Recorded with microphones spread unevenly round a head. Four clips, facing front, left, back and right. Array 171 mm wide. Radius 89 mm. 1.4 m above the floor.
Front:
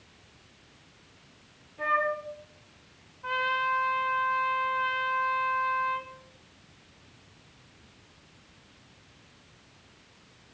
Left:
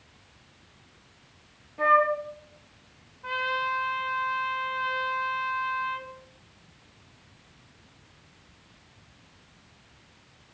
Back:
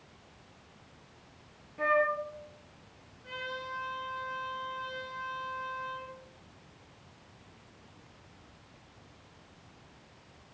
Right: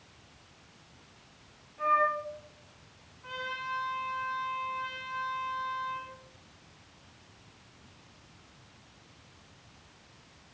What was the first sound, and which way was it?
A flute, 105° left.